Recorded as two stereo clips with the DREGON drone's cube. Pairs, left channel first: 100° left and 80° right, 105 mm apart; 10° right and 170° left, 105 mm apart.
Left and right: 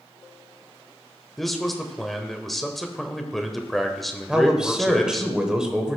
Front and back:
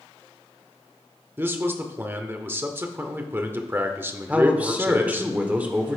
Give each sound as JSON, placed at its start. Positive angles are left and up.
{"t": 1.4, "sound": "a man speaking", "azimuth_deg": -175, "distance_m": 0.8}
{"t": 4.3, "sound": "a man speaking", "azimuth_deg": -145, "distance_m": 1.0}